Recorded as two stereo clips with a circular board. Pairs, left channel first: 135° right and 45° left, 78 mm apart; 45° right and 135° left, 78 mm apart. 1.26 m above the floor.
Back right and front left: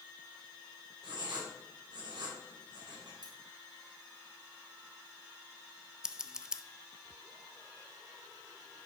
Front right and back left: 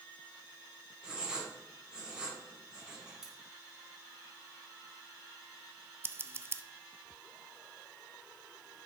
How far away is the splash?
No splash in this recording.